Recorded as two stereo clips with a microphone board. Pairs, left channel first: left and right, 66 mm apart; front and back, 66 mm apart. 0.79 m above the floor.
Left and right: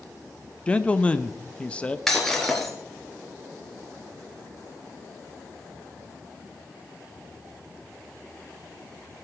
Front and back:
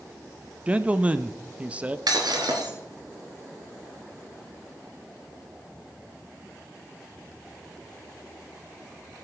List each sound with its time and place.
0.7 s a man speaking: 140° left, 0.6 m
2.1 s breaking glass: 175° left, 2.5 m